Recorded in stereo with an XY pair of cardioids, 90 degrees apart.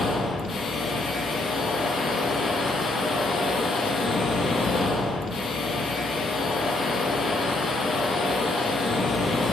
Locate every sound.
0.0 s a machine running: 60° left, 0.7 m